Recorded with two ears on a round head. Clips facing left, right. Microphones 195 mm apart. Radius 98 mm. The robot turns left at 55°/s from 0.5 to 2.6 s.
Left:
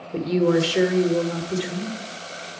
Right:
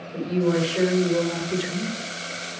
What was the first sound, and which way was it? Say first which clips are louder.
A woman speaking: left 3 dB; 60° left.